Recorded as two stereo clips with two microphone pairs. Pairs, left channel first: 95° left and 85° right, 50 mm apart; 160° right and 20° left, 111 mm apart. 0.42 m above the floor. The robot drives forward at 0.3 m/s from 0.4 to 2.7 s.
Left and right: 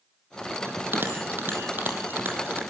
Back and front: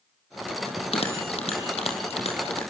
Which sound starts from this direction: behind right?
A bell, at 0.7 s.